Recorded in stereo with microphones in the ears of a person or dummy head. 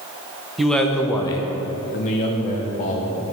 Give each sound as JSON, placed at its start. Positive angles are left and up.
{"t": 0.6, "sound": "a man speaking", "side_deg": -5, "distance_m": 1.2}